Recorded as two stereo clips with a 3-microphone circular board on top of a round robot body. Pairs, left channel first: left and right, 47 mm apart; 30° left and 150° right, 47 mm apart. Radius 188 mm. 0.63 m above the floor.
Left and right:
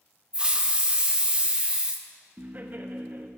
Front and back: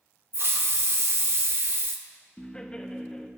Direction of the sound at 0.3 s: 155° right.